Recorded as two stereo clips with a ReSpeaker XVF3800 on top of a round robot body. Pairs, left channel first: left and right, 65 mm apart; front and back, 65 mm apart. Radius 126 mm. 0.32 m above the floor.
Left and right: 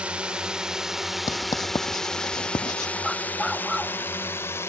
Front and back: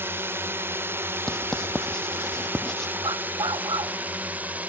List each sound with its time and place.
0.0 s a drone: 150° right; by 4.7 s 120° left
1.3 s writing: 80° left
3.0 s a dog barking: straight behind